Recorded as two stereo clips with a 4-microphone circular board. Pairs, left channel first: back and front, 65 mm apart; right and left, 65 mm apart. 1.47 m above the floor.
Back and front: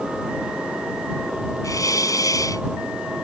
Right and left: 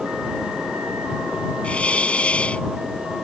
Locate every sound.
1.6 s a hiss: 160° right